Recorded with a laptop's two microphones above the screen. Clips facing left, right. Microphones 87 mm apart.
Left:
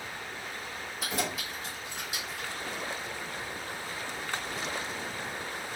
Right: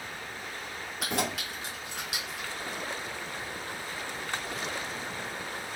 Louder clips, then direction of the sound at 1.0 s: Right 2 dB; 65° right (ahead or behind).